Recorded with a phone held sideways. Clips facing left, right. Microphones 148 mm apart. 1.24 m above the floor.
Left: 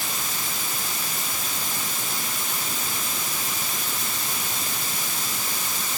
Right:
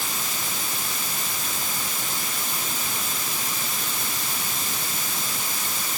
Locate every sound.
Only background noise.